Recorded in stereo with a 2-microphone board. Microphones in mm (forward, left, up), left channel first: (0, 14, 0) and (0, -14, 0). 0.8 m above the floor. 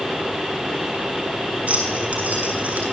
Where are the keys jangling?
50° right (ahead or behind), 6 m; by 2.8 s 55° right (ahead or behind), 7.5 m.